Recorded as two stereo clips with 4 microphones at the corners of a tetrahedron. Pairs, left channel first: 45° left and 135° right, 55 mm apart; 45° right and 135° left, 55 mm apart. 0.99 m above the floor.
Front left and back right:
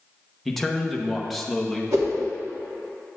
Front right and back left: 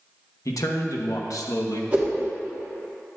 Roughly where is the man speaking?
Ahead right.